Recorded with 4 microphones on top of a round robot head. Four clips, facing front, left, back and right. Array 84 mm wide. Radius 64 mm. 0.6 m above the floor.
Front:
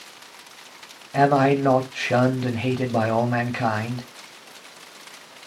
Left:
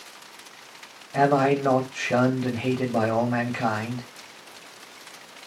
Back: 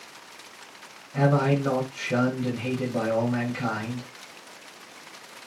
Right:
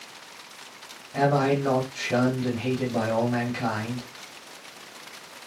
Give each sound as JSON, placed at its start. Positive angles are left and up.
{"t": 1.1, "sound": "a man speaking", "azimuth_deg": 20, "distance_m": 1.5}